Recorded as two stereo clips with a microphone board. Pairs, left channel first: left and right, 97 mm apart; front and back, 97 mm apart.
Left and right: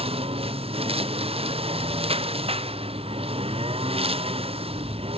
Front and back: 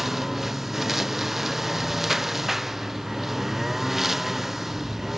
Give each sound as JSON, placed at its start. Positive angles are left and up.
{"t": 0.0, "sound": "a lawn mower", "azimuth_deg": -95}